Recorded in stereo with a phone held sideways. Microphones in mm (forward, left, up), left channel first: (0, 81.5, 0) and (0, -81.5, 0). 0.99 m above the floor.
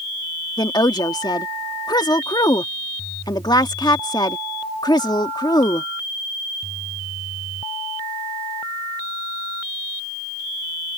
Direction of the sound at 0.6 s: 25° left (ahead or behind).